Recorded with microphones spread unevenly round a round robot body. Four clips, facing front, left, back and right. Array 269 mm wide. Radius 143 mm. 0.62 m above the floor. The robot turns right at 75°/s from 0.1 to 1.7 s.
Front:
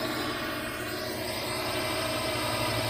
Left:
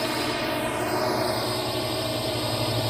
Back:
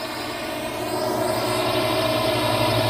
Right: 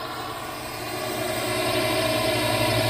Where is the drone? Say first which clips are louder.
Left 5 dB, back 3 dB; 80° left; by 2.9 s 160° right.